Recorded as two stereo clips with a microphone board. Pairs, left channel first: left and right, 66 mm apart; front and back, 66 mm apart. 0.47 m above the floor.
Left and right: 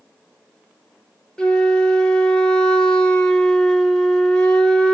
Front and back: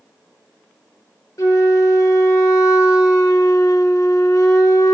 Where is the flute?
15° left, 0.7 m.